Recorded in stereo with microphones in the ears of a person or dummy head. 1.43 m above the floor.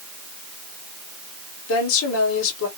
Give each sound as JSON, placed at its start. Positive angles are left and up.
{"t": 1.7, "sound": "a woman speaking", "side_deg": 75, "distance_m": 1.1}